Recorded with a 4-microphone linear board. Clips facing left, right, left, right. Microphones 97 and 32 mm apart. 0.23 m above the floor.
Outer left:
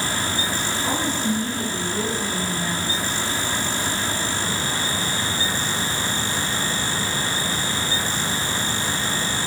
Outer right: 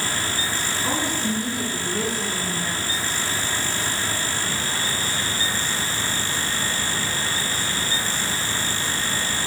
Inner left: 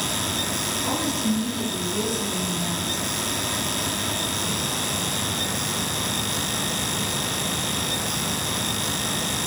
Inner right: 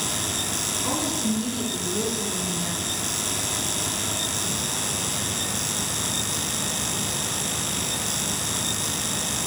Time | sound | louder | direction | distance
0.8 | a woman speaking | outer left 1 dB, inner left 1 dB | 15° right (ahead or behind) | 3 m